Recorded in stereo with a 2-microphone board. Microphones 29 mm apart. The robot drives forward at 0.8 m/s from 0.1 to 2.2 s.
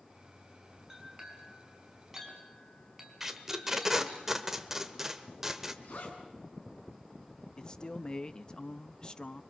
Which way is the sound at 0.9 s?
10° right (ahead or behind).